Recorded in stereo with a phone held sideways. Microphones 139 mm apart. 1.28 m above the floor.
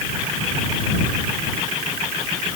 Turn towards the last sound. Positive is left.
No sound to turn to.